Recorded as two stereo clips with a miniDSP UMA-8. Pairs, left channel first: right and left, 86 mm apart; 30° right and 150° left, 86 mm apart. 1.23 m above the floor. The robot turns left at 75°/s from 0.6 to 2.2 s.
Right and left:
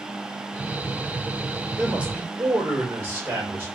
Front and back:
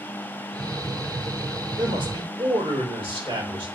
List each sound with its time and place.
1.8 s a man speaking: 175° right, 1.9 m; by 3.7 s 155° left, 1.9 m